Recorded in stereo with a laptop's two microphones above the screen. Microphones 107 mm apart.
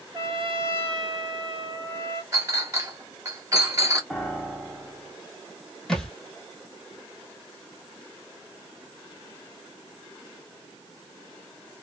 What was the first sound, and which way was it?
A trumpet, 50° right (ahead or behind).